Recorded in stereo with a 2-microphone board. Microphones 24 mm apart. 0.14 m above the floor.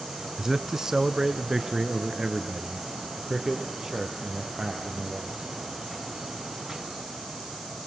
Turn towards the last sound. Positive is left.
turn(degrees=-25)  # may be behind; listen again after turning